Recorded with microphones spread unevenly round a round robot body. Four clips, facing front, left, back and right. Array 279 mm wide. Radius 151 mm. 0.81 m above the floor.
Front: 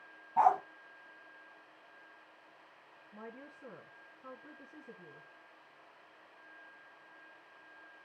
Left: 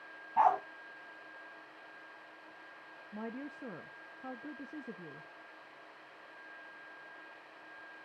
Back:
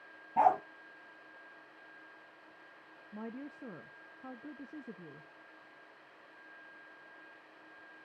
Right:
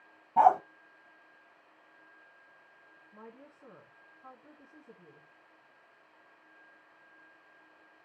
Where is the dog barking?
145° right, 1.1 m.